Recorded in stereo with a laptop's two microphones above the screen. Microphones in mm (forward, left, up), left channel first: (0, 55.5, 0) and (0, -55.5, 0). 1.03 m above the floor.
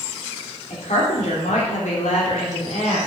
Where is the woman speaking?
75° left (ahead or behind), 3 m; by 3.1 s 70° left (ahead or behind), 3 m.